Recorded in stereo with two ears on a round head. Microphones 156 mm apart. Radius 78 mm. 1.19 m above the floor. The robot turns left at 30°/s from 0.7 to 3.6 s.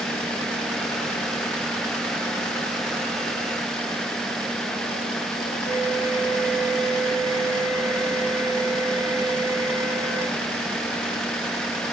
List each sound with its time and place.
5.7 s a flute: 10° left (ahead or behind), 2.5 m